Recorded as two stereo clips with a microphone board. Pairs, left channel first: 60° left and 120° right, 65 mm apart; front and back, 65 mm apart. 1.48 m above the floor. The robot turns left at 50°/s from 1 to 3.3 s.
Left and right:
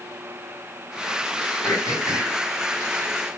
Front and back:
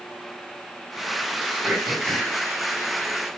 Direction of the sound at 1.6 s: 100° left.